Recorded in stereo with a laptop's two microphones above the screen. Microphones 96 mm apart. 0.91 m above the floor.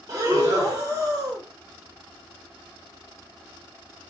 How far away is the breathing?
About 0.9 m.